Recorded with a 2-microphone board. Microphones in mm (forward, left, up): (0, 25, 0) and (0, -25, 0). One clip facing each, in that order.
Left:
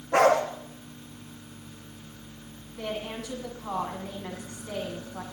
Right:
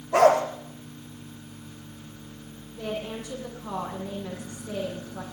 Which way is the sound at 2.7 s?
90° left.